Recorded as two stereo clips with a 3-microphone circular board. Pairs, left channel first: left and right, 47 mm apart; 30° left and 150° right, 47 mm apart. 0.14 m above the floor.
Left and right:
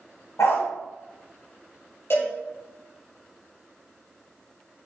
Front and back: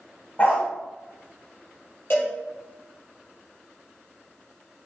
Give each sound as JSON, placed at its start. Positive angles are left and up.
{"t": 0.4, "sound": "a dog barking", "azimuth_deg": 80, "distance_m": 4.0}
{"t": 2.1, "sound": "a cowbell", "azimuth_deg": 65, "distance_m": 4.5}